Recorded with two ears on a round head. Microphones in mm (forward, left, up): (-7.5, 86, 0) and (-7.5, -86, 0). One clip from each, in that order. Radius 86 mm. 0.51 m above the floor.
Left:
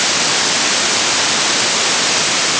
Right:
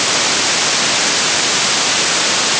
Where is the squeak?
No squeak in this recording.